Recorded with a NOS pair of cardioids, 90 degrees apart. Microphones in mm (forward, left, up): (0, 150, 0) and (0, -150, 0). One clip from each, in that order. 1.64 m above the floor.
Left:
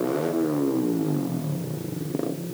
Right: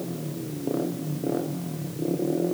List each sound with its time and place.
Only background noise.